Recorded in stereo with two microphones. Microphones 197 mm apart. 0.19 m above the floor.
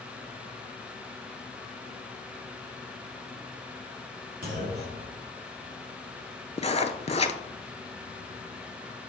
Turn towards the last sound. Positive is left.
turn(degrees=30)  # may be behind; listen again after turning